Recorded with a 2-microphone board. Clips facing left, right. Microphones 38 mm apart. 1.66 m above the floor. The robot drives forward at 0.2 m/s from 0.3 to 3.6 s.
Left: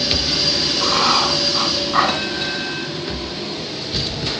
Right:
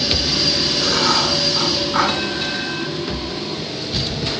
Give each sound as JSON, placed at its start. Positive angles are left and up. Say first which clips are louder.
{"t": 0.8, "sound": "writing", "louder": "left 2 dB", "side_deg": 55, "distance_m": 7.0}